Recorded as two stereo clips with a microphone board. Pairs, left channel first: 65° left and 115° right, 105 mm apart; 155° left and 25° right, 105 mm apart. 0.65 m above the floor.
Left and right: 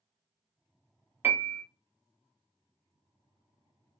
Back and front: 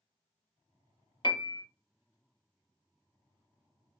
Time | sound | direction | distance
1.2 | a piano | 175° right | 0.5 m